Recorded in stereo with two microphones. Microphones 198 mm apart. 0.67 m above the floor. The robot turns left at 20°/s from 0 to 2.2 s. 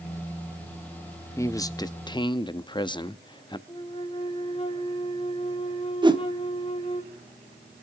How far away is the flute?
About 2.5 m.